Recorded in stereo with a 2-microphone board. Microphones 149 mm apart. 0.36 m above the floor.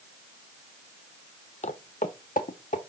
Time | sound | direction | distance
1.6 | footsteps | 55° left (ahead or behind) | 0.5 m